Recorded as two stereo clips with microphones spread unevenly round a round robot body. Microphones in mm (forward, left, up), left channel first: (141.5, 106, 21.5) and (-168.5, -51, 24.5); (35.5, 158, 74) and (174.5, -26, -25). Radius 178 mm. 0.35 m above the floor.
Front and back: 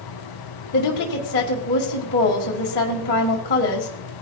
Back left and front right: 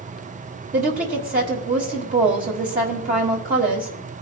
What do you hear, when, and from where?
0.7 s a woman speaking: 30° right, 1.5 m